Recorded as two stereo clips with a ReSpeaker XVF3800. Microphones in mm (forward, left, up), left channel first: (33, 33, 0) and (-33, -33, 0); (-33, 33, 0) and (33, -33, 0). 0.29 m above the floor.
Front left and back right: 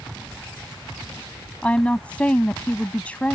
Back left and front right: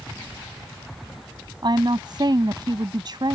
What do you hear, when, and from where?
1.6 s a woman speaking: 30° right